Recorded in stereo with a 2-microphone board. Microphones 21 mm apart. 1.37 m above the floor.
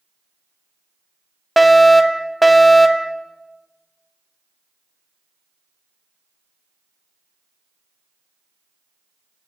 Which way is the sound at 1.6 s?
Centre (ahead or behind).